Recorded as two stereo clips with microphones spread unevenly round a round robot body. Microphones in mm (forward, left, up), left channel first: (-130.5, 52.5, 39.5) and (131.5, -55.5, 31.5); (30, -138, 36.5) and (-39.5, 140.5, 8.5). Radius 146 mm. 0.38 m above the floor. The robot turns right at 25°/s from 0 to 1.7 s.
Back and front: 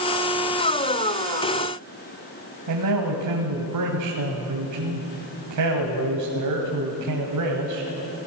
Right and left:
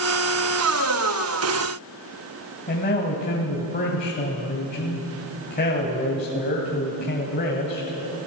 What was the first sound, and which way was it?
A man speaking, 15° right.